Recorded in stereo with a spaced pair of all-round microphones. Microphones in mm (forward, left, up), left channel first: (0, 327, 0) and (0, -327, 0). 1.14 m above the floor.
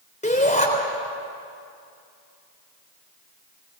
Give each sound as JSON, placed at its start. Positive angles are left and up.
{"t": 0.2, "sound": "a shout", "side_deg": 10, "distance_m": 3.5}